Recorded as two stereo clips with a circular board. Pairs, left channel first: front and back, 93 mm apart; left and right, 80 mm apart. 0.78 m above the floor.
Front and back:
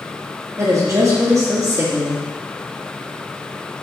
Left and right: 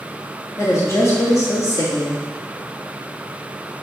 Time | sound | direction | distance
0.6 | a woman speaking | 135° left | 1.3 m